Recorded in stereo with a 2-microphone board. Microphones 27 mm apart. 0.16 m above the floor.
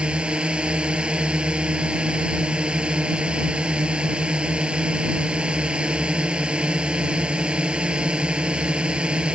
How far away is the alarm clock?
No alarm clock in this recording.